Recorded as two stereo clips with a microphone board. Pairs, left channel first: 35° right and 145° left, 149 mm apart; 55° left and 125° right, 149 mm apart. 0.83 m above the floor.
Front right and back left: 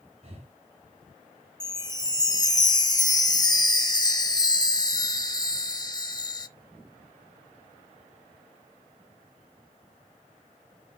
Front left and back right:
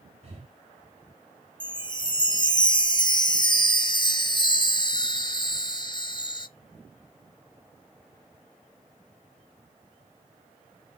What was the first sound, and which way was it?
Breathing, 170° right.